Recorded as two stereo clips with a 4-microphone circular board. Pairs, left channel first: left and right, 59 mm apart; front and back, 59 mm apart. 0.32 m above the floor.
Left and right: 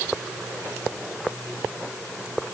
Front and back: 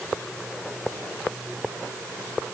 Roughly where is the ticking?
No ticking in this recording.